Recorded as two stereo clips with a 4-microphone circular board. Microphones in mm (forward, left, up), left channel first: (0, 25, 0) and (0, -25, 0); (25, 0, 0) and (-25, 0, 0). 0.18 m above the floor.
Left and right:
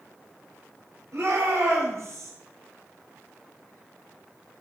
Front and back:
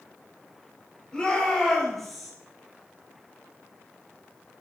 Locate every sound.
1.1 s a shout: 70° right, 3.5 m; by 2.3 s 95° right, 2.5 m